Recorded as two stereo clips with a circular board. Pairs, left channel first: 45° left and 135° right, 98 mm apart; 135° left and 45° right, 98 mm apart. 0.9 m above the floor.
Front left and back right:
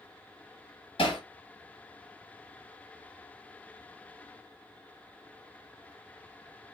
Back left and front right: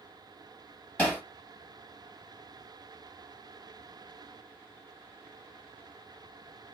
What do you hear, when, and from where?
1.0 s hammering: 65° left, 1.7 m